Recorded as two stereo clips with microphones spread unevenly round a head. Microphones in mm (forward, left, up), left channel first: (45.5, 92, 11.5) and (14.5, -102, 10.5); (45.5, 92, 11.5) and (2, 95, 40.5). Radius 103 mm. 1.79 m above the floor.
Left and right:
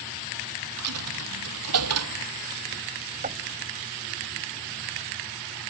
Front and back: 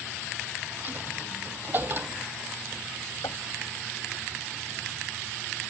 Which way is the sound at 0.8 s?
115° right.